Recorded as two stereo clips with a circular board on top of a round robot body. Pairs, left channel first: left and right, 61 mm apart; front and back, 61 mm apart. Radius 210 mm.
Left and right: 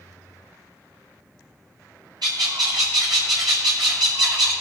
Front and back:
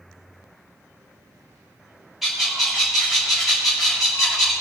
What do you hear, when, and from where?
2.2 s a bird: 90° right, 0.8 m